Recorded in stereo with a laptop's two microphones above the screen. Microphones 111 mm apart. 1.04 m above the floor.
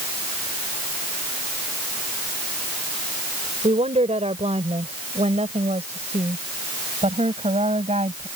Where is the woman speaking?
85° right.